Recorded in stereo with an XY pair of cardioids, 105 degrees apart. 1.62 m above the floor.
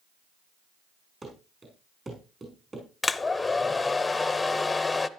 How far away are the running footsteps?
About 5.5 m.